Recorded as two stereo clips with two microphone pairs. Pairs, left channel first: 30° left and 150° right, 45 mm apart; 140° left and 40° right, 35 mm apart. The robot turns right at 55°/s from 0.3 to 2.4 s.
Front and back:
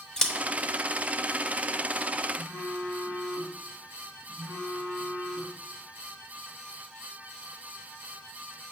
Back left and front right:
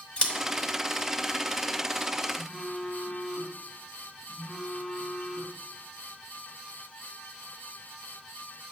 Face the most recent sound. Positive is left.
turn(degrees=-160)